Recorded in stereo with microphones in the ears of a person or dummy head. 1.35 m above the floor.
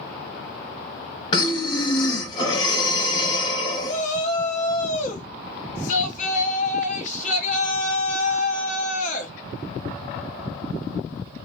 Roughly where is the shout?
Left.